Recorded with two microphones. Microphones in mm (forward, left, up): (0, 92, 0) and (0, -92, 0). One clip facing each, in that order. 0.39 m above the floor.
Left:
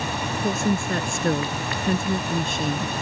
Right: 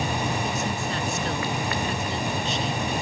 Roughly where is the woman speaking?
Left.